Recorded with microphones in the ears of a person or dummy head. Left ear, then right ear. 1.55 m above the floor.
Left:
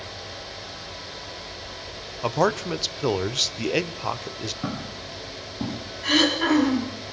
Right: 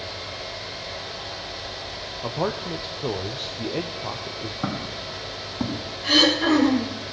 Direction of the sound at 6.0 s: 35° left (ahead or behind).